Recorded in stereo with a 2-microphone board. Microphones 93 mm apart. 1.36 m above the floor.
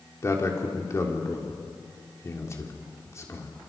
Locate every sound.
0.2 s a man speaking: 35° left (ahead or behind), 3.5 m